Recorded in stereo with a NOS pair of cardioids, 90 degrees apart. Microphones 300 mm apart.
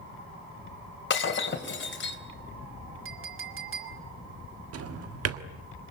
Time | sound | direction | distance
1.1 | breaking glass | 40° left | 3 m
3.0 | a clink | 45° right | 2.5 m
4.7 | a drawer | 55° right | 1.5 m